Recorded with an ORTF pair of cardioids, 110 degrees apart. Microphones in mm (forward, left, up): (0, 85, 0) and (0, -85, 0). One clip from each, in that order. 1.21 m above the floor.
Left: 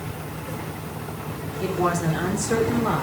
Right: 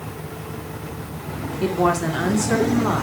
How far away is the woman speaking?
About 3 m.